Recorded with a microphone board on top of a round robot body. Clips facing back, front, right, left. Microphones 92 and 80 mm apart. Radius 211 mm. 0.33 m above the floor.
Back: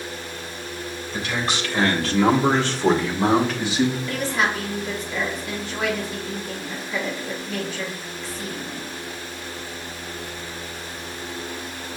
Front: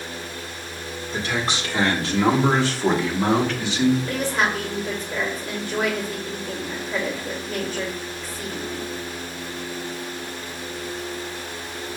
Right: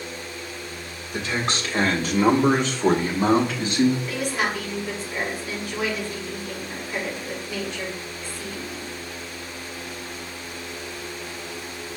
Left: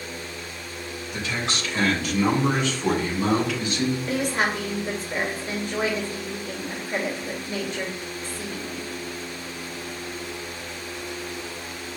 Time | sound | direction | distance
1.1 | a man speaking | 40° right | 2.0 m
4.1 | a woman speaking | 40° left | 2 m